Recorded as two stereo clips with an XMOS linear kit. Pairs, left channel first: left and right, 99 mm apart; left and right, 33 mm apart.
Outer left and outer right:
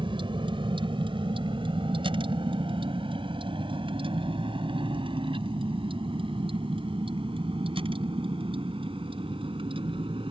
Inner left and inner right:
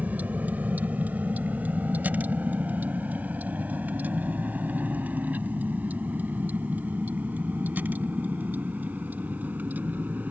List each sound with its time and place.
0.0 s a vehicle: 55° right (ahead or behind); by 10.3 s 60° right (ahead or behind)